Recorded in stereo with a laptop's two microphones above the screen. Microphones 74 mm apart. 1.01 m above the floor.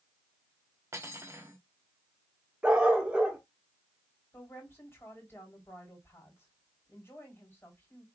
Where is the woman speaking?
30° left (ahead or behind), 3 m.